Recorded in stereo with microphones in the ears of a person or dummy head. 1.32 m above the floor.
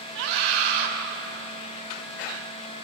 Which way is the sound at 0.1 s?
60° right (ahead or behind).